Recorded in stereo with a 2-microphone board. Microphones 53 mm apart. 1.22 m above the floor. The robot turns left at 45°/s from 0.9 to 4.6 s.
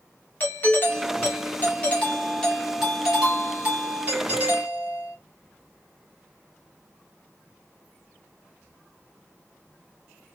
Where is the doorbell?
85° left, 1.1 m; by 5.2 s 80° right, 1.1 m.